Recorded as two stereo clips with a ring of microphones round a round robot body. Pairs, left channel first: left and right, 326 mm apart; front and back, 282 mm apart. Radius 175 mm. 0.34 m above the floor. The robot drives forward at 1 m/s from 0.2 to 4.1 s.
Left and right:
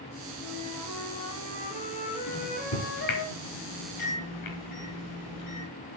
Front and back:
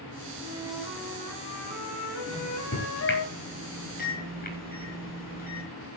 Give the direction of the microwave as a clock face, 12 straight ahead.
11 o'clock.